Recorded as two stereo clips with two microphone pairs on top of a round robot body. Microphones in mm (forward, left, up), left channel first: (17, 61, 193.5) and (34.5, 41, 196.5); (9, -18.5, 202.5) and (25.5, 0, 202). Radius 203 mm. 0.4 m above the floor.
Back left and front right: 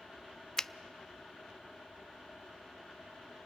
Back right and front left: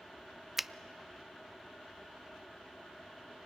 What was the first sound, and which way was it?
A finger snap, 115° left.